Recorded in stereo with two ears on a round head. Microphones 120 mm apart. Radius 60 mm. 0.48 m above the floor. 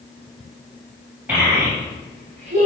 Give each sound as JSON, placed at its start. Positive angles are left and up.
{"t": 1.3, "sound": "a child speaking", "side_deg": -15, "distance_m": 2.0}